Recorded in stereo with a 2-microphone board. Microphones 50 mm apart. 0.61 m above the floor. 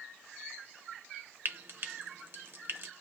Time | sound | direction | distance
1.4 | frying | 50° right (ahead or behind) | 0.7 m